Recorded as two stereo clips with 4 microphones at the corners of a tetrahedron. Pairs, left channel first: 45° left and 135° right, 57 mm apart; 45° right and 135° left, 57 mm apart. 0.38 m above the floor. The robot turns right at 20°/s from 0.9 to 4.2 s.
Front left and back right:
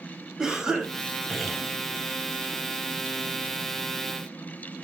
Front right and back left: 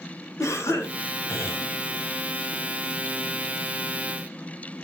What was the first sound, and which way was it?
A cough, 55° right.